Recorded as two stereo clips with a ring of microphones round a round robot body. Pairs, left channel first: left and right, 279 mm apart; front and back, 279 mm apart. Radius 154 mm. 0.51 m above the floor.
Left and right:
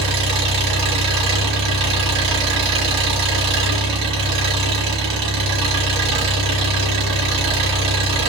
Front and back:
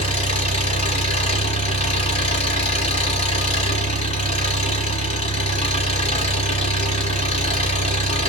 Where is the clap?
No clap in this recording.